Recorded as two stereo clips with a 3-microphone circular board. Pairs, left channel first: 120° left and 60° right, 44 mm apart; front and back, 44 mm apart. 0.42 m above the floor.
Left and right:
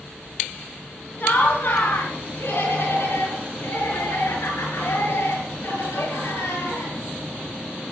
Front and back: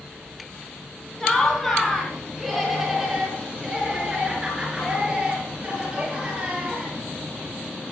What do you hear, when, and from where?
1.2 s laughter: 75° left, 3 m; by 7.0 s 115° left, 8 m